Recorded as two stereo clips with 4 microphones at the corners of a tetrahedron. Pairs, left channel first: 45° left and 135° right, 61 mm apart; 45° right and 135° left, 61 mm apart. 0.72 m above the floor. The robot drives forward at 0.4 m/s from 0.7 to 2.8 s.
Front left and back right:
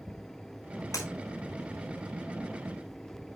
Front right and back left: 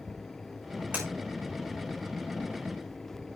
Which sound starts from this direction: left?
Breaking glass, at 0.9 s.